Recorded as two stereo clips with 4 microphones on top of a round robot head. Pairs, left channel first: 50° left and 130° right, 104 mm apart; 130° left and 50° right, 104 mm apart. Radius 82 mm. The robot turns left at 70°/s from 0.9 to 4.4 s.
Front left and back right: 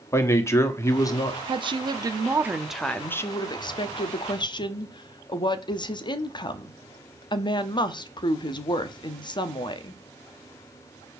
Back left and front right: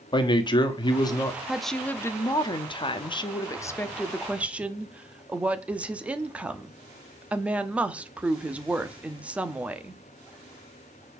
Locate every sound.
0.1 s a man speaking: 105° left, 1.6 m; by 1.4 s 75° left, 1.6 m
1.5 s a woman speaking: 130° right, 1.0 m; by 10.0 s 25° left, 1.0 m